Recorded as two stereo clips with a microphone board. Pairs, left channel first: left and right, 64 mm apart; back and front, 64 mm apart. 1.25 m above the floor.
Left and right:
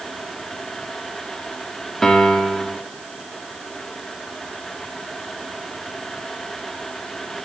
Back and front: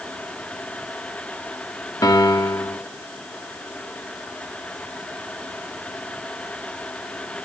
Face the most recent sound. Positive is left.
turn(degrees=170)